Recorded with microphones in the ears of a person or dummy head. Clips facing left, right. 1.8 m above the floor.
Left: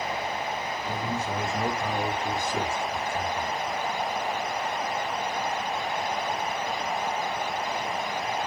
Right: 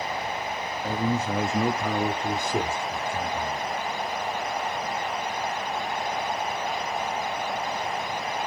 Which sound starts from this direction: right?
A man speaking, at 0.8 s.